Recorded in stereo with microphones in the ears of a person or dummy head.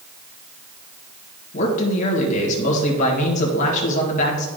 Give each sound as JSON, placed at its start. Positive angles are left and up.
{"t": 1.5, "sound": "a man speaking", "side_deg": 45, "distance_m": 1.8}